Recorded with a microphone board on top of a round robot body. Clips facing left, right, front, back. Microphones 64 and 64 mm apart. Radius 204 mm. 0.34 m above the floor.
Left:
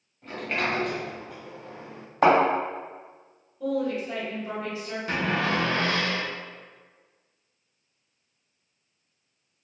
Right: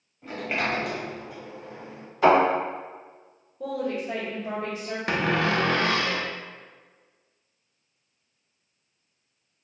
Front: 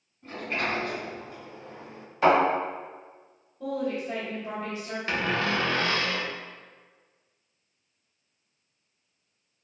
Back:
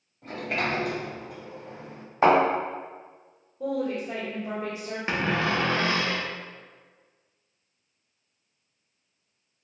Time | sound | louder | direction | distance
0.2 | a sliding door | even, back 2 dB | 175° right | 1.0 m
2.2 | a thud | right 1 dB, back 1 dB | 125° left | 1.4 m
3.6 | a woman speaking | left 2 dB, back 1 dB | 115° right | 1.8 m
5.1 | a cupboard door | right 2 dB, back 1 dB | 110° right | 0.5 m